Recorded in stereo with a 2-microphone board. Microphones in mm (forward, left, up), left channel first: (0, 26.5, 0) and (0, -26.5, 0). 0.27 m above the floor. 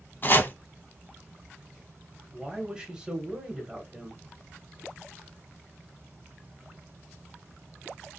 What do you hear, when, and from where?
0.2 s chopping: 40° left (ahead or behind), 0.5 m
2.3 s a woman speaking: 15° right (ahead or behind), 0.9 m